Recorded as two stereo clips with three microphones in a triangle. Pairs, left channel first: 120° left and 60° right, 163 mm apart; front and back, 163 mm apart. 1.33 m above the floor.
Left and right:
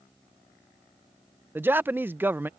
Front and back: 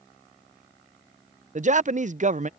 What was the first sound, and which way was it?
A man speaking, 135° right.